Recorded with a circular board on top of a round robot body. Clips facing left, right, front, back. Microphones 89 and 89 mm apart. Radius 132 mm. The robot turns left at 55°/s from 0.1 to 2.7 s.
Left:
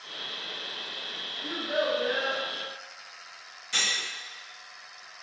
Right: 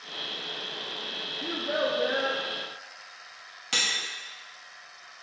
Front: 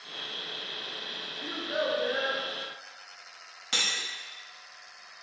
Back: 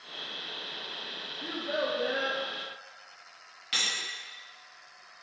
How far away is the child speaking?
About 0.6 m.